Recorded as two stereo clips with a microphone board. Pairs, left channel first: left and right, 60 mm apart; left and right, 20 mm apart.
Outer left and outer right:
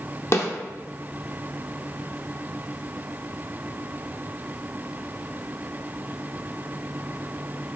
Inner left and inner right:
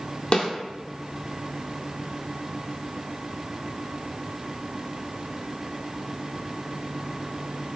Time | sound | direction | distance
0.3 | a snare drum | 45° left (ahead or behind) | 0.7 m